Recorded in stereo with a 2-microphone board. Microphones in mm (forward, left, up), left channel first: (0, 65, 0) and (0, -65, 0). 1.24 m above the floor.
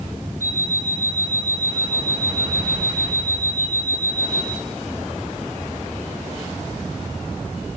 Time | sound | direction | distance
0.4 | an alarm clock | 75° left (ahead or behind) | 6 m